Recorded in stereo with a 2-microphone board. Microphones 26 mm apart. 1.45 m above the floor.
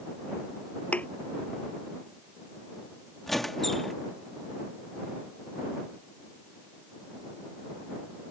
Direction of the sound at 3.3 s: 10° left (ahead or behind).